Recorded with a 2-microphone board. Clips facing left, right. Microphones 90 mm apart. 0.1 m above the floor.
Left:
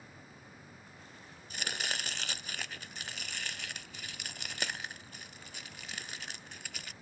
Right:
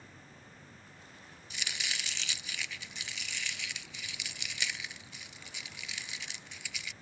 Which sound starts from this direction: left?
Chopping, at 1.5 s.